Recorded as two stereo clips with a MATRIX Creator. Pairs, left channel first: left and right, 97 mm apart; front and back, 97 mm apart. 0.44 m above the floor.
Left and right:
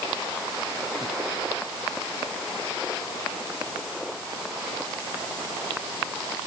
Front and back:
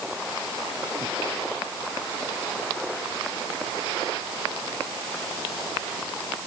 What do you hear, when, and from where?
Only background noise.